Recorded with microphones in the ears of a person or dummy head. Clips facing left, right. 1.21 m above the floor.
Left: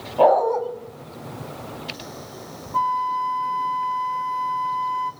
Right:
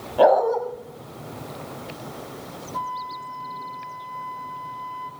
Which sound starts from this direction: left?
A flute, at 2.7 s.